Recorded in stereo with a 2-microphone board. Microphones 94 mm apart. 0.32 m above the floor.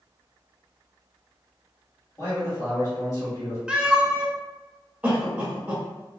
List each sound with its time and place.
2.2 s a man speaking: 40° left (ahead or behind), 1.8 m
3.7 s a cat meowing: 10° right (ahead or behind), 0.6 m
5.0 s a cough: 15° right (ahead or behind), 1.3 m